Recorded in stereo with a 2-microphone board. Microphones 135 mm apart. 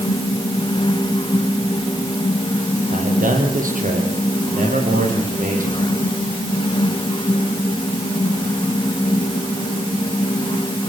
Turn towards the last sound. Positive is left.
turn(degrees=-80)